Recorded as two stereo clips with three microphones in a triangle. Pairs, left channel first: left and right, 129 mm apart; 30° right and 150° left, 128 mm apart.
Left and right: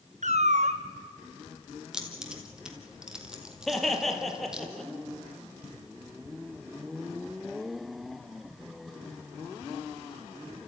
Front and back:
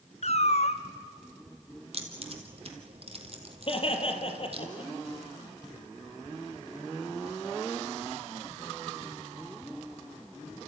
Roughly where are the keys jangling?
Behind.